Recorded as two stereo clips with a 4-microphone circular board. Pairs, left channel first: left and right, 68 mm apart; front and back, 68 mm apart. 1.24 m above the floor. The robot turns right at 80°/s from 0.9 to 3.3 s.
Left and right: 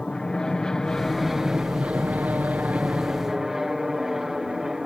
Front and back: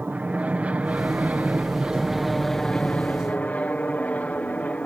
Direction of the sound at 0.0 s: 155° left.